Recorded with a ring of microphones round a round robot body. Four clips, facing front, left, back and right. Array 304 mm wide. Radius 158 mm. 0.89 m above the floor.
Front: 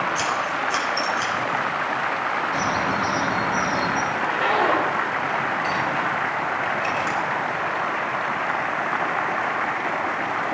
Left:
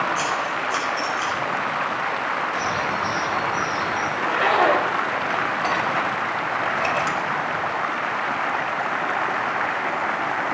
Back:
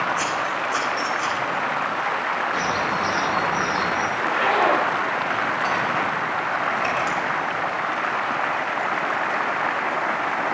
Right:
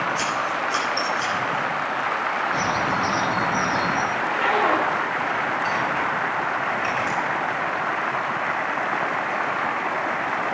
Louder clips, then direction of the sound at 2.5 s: Right 1 dB, even; 55° right.